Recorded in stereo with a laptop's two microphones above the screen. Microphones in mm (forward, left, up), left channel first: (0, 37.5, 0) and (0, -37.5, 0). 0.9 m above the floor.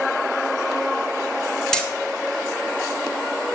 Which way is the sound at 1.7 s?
5° left (ahead or behind).